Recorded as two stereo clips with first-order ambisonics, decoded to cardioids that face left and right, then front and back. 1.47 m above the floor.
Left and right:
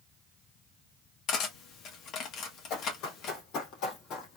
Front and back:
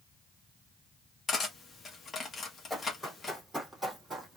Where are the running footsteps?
85° left, 3 m; by 4.4 s 105° left, 2.5 m.